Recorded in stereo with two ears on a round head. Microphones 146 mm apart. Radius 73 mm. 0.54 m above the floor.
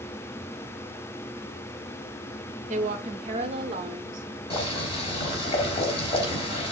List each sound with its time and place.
2.7 s a woman speaking: 45° right (ahead or behind), 0.9 m; by 4.3 s 30° right (ahead or behind), 1.6 m
4.5 s boiling: 35° left (ahead or behind), 5 m